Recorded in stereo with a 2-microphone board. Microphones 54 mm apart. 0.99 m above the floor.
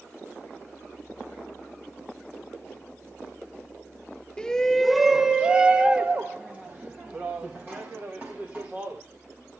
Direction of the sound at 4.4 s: 15° left (ahead or behind).